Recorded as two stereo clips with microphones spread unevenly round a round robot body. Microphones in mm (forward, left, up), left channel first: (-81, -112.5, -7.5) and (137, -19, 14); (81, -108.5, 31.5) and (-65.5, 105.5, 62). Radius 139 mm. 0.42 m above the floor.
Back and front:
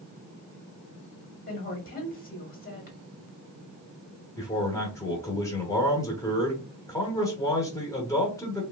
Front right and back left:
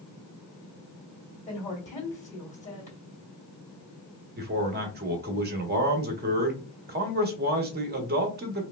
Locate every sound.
1.5 s a woman speaking: 110° right, 2 m
4.4 s a man speaking: 145° left, 0.9 m